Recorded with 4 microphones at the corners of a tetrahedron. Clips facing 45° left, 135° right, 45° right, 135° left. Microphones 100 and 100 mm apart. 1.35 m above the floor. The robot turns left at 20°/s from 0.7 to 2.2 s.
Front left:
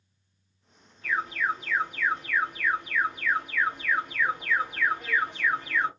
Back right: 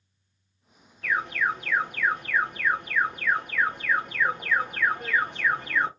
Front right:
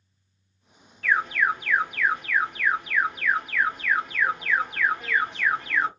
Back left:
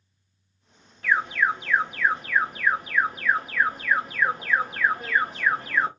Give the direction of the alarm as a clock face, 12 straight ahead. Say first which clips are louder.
Back right 2 dB, even; 5 o'clock.